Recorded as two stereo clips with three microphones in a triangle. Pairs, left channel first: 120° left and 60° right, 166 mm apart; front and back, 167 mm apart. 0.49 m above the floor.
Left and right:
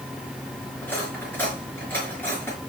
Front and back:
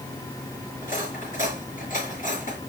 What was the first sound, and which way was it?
Cutlery clinking, 40° left.